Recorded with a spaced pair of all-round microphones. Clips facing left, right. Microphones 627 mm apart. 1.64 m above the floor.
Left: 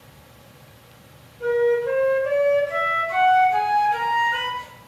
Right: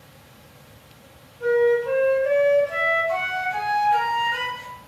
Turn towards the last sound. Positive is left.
turn(degrees=-25)  # may be behind; listen again after turning